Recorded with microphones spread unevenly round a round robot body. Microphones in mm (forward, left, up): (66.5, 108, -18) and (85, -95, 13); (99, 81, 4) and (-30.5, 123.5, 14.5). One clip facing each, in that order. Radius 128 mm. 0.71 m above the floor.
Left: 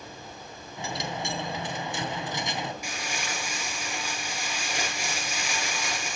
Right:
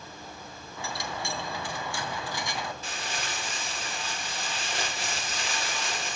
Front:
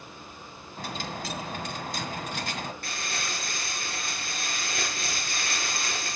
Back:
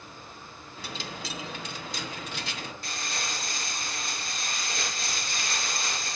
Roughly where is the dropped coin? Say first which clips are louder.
Left 3 dB, front 4 dB; ahead left.